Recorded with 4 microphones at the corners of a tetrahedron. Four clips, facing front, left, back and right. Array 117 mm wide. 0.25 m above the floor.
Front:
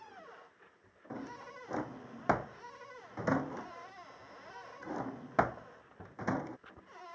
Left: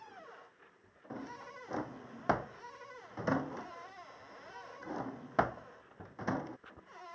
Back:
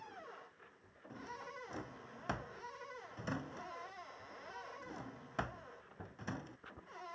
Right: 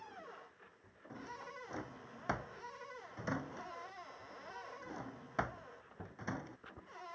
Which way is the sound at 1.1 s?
35° left.